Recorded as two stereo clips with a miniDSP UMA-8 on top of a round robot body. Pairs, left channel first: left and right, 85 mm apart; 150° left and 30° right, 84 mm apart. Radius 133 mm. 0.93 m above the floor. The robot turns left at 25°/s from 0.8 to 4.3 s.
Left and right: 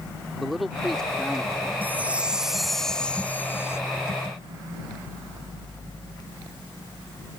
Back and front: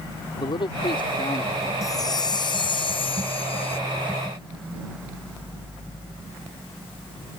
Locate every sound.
0.4 s a man speaking: straight behind; by 1.7 s 160° left
1.8 s a chime: 160° right; by 3.8 s 150° left